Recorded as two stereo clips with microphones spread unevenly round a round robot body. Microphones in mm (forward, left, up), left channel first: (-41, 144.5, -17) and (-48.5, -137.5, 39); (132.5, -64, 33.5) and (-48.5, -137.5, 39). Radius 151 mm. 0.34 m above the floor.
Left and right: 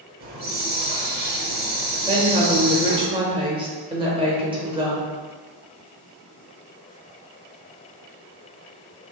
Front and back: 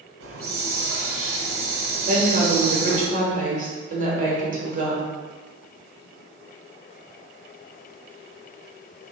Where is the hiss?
150° right, 1.1 m.